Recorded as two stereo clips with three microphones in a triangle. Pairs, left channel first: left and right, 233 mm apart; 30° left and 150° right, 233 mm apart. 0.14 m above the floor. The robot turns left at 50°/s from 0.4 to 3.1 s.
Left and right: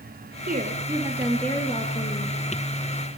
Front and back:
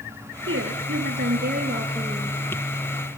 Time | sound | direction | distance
0.5 | a woman speaking | 140° right | 3.5 m